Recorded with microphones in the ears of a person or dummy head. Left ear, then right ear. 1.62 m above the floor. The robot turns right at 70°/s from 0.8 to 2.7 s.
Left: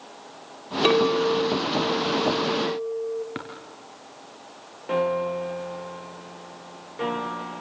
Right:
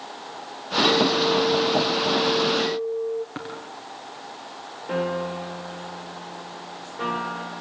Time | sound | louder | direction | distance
0.8 | a clink | left 1 dB | 155° left | 3 m
3.4 | tapping | right 1 dB | 5° left (ahead or behind) | 4 m
4.9 | a piano | left 3 dB | 5° left (ahead or behind) | 2.0 m